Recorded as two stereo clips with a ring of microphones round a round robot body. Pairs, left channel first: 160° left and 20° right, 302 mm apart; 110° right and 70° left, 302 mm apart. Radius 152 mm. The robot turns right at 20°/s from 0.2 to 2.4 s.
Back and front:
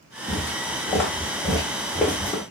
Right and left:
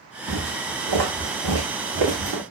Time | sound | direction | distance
0.3 | footsteps | 80° left | 1.4 m